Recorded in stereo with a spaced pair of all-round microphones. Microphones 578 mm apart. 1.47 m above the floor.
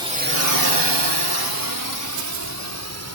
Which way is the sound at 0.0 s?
10° right (ahead or behind).